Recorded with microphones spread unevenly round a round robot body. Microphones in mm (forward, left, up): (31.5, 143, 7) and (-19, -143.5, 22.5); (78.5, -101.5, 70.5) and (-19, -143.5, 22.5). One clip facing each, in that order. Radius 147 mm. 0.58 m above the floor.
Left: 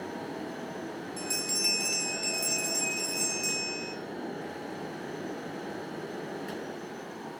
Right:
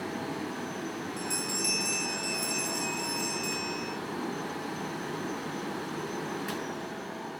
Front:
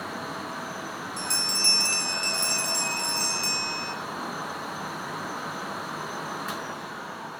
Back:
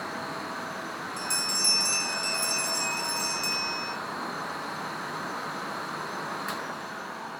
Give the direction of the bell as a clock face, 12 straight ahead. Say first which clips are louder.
Right 2 dB, front 1 dB; 12 o'clock.